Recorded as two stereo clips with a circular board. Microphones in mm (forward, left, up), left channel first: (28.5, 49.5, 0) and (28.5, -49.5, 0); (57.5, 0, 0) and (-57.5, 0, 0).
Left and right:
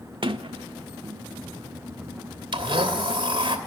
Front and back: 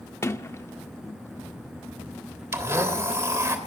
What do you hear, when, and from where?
0.2 s a sliding door: 65° right, 0.8 m
2.5 s a blender: 115° right, 2.5 m